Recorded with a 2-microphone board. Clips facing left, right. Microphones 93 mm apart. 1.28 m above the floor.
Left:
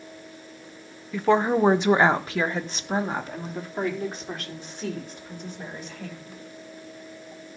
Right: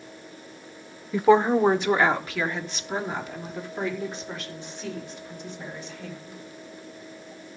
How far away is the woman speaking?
About 0.8 m.